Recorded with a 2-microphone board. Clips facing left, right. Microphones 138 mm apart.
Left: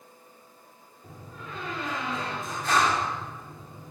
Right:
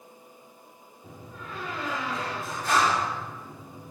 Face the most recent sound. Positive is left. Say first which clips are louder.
# right 1 dB
turn(degrees=-5)  # may be behind; listen again after turning